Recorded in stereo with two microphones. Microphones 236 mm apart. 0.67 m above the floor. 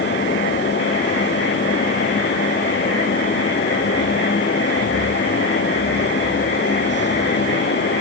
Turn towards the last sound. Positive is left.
No sound to turn to.